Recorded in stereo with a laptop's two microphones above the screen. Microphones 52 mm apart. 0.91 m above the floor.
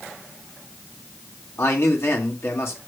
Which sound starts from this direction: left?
A man speaking, at 1.6 s.